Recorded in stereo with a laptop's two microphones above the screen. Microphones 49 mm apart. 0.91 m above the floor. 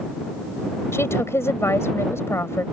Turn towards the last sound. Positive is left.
turn(degrees=65)  # may be behind; listen again after turning